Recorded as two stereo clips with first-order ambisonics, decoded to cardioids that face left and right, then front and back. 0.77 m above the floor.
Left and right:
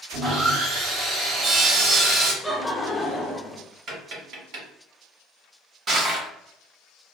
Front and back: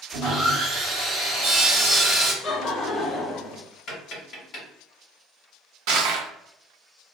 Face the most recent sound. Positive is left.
turn(degrees=-155)